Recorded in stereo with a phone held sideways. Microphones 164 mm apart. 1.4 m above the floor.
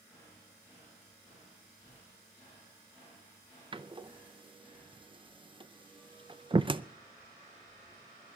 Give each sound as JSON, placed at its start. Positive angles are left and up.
{"t": 3.7, "sound": "a door slam", "side_deg": -30, "distance_m": 0.5}